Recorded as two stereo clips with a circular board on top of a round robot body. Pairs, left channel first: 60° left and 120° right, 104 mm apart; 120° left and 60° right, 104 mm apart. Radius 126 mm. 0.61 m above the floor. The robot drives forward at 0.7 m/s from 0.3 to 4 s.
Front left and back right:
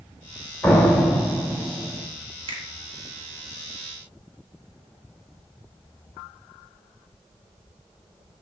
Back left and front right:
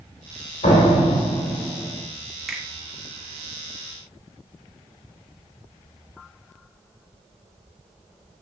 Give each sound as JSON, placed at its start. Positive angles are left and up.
{"t": 0.6, "sound": "a door slam", "azimuth_deg": 130, "distance_m": 1.8}
{"t": 2.5, "sound": "a finger snap", "azimuth_deg": -145, "distance_m": 1.7}